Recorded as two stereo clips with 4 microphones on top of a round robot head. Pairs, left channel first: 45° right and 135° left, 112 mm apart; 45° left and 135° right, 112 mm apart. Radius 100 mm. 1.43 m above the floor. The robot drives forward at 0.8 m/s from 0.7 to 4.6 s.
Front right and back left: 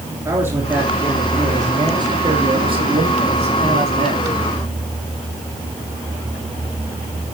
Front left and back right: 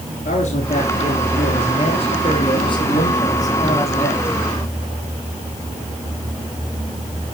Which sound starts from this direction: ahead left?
A man speaking, at 0.2 s.